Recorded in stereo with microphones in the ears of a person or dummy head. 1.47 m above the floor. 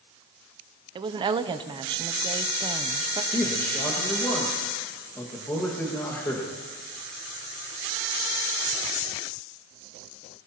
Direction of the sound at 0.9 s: 20° right (ahead or behind).